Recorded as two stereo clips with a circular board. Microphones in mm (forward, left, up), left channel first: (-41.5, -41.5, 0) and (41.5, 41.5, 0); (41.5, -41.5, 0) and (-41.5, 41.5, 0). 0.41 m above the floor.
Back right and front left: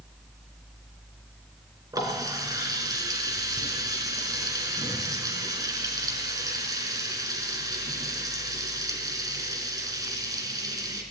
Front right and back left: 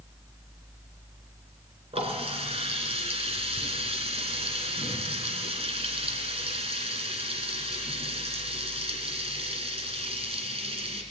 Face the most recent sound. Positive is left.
turn(degrees=100)